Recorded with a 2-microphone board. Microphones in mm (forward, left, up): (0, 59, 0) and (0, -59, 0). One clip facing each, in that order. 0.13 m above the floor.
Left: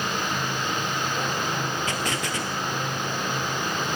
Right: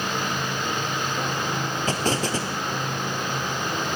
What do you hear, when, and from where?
1.9 s an explosion: 35° right (ahead or behind), 1.9 m